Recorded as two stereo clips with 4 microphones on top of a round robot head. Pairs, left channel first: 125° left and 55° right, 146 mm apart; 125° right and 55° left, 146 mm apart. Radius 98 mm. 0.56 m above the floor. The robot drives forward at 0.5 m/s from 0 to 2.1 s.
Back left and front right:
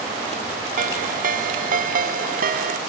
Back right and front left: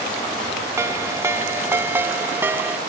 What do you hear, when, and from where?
0.8 s a ringtone: 20° right; by 2.8 s 25° right